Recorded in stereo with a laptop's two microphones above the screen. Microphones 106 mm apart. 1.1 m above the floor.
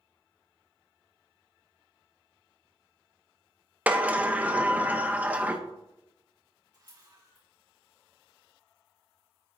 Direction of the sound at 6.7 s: 45° right (ahead or behind).